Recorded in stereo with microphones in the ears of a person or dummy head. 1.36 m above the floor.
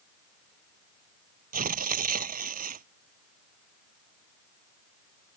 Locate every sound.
1.5 s tearing paper: 45° right (ahead or behind)